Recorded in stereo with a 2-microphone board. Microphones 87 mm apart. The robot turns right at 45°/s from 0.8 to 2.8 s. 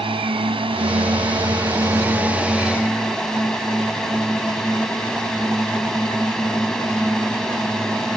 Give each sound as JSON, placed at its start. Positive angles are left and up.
{"t": 0.0, "sound": "a drone", "azimuth_deg": -85}